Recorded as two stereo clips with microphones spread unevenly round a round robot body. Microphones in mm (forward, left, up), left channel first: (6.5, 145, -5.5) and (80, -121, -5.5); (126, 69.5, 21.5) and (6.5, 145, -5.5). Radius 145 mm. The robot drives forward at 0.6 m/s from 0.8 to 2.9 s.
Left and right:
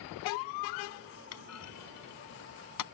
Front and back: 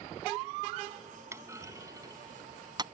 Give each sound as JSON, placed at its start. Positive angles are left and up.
{"t": 1.3, "sound": "a clunk", "azimuth_deg": 75}